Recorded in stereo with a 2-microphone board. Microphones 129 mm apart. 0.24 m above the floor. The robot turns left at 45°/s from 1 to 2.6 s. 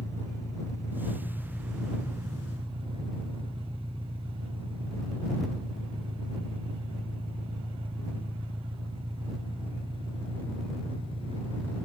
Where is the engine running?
25° left; by 11.9 s 45° right.